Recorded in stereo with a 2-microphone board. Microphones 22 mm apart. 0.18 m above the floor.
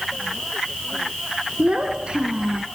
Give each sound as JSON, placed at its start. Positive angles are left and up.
{"t": 1.6, "sound": "a child speaking", "side_deg": -55, "distance_m": 1.9}